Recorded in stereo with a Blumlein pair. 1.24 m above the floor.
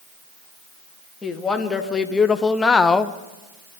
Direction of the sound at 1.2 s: 15° left.